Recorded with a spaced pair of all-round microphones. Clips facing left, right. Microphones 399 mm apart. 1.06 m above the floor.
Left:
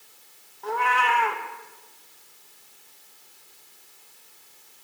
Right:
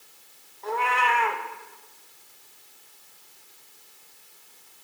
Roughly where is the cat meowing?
Left.